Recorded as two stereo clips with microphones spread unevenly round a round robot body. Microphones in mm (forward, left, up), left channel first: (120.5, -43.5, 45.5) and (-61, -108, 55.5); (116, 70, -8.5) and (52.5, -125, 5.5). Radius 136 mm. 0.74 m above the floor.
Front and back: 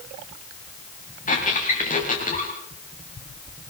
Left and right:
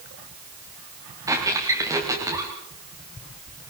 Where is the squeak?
35° right, 7.5 m.